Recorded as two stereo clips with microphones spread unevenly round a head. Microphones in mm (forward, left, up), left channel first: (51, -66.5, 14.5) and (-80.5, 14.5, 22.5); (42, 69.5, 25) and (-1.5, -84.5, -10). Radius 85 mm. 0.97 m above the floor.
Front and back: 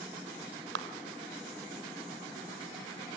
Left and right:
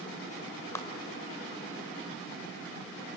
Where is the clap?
150° left, 3.5 m.